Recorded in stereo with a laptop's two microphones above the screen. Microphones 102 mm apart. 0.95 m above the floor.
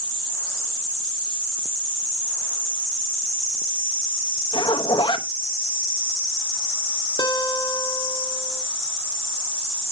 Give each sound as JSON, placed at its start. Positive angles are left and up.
{"t": 4.5, "sound": "a zipper", "side_deg": 50, "distance_m": 0.7}
{"t": 7.2, "sound": "a guitar", "side_deg": 40, "distance_m": 1.1}